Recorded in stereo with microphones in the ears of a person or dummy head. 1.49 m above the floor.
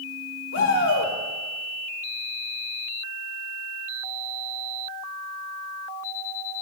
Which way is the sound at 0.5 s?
80° left.